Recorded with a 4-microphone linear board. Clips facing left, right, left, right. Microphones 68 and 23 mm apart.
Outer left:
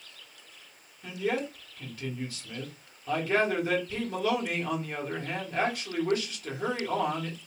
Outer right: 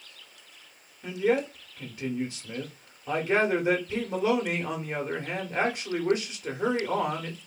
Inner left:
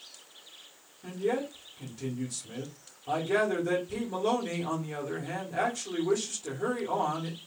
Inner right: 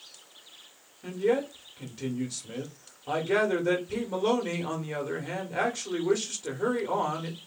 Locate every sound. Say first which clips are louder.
1.0 s a man speaking: outer right 5 dB, inner right 4 dB; 20° right (ahead or behind), 1.2 m